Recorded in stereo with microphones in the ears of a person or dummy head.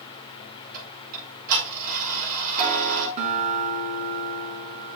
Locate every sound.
0.7 s ticking: 50° right (ahead or behind), 4.5 m
3.2 s a guitar: 45° right (ahead or behind), 4.5 m